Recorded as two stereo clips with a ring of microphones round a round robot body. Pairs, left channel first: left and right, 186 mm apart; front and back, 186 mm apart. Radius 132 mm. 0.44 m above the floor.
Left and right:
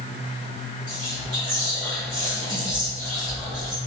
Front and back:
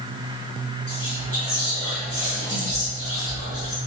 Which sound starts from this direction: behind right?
Whispering, at 0.9 s.